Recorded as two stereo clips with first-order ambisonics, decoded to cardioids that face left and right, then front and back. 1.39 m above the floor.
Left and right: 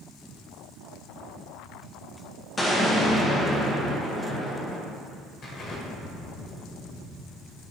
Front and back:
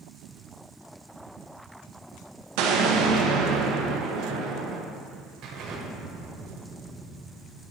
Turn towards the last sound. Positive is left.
turn(degrees=145)